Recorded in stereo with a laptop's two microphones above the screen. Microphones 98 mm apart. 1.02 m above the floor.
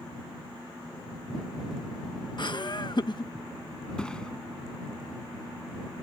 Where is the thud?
10° left (ahead or behind).